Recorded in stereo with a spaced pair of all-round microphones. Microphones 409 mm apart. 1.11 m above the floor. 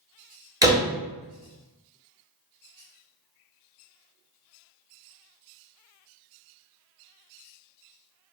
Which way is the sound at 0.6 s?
10° right (ahead or behind).